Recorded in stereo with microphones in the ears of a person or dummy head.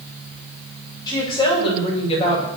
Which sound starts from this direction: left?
A woman speaking, at 1.1 s.